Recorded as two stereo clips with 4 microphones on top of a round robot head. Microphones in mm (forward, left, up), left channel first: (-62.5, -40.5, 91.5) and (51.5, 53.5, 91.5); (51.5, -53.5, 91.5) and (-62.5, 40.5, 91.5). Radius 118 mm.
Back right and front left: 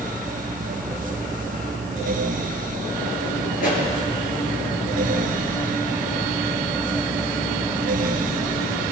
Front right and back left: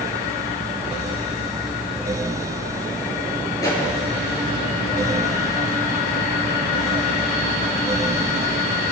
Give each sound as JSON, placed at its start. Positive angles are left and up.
{"t": 3.6, "sound": "a pop", "azimuth_deg": -105, "distance_m": 4.5}